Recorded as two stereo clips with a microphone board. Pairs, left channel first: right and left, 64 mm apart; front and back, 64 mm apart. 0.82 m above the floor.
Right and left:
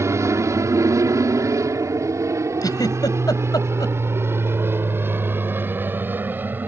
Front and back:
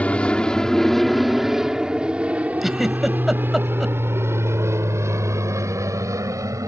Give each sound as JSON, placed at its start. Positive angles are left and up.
{"t": 0.0, "sound": "an aircraft", "azimuth_deg": 65}
{"t": 2.6, "sound": "a giggle", "azimuth_deg": -95}